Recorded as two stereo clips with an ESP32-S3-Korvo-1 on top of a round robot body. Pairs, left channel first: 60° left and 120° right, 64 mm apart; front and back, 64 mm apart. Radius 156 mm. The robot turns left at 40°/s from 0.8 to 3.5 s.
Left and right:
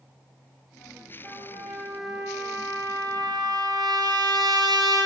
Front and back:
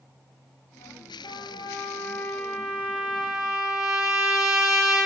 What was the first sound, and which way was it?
A trumpet, 15° right.